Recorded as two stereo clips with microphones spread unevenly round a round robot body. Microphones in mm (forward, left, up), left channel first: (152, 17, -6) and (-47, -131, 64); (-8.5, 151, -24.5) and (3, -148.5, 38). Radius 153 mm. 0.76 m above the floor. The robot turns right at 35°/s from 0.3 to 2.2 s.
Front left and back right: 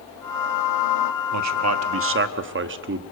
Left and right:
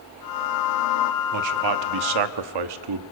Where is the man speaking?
125° right, 1.3 m; by 3.0 s 95° right, 1.3 m.